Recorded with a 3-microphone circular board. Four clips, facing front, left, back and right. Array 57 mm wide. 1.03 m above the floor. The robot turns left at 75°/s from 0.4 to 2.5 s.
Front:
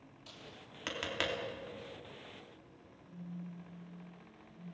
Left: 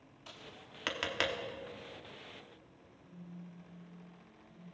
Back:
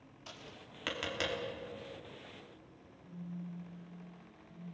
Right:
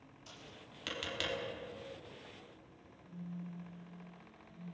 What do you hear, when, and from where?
0.3 s tapping: 135° left, 3 m; by 1.4 s 65° left, 3 m
3.0 s a phone buzzing: 130° left, 6.5 m